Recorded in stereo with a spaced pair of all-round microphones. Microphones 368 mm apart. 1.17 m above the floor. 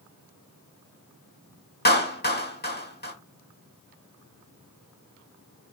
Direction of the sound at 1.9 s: 25° left (ahead or behind).